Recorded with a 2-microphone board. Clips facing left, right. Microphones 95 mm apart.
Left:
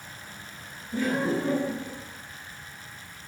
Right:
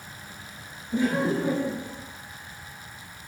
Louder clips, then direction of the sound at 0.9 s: Right 2 dB; 20° right (ahead or behind).